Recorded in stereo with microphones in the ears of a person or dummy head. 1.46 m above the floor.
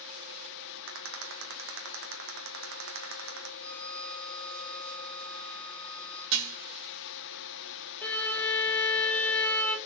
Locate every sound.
0.9 s a rattle: 70° right (ahead or behind), 1.9 m
3.6 s a violin: 5° left (ahead or behind), 2 m
6.3 s dishes clattering: 70° right (ahead or behind), 1.7 m
8.0 s a violin: 10° left (ahead or behind), 1.4 m